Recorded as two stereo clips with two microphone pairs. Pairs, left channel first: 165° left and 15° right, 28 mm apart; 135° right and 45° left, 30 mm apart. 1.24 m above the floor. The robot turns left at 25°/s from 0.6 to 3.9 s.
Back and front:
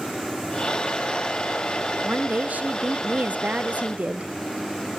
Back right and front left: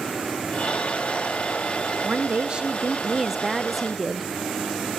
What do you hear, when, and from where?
2.0 s a woman speaking: 5° left, 0.7 m; by 4.2 s 45° right, 0.7 m